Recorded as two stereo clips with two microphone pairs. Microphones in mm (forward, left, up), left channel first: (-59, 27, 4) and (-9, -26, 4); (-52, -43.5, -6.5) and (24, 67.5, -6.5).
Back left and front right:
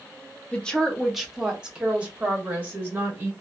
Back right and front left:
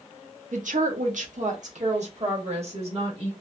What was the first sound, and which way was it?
A woman speaking, 65° left.